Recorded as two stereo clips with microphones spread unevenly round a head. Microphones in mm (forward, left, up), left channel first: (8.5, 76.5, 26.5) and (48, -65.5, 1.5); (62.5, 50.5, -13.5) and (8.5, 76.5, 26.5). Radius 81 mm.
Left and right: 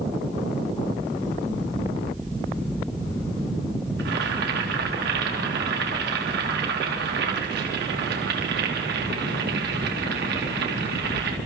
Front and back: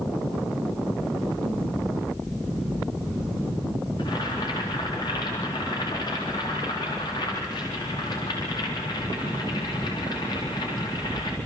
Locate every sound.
4.0 s boiling: 70° right, 3.5 m